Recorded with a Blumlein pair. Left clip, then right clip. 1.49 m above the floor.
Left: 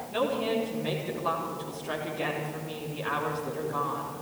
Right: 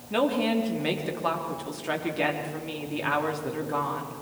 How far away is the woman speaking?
About 3.5 m.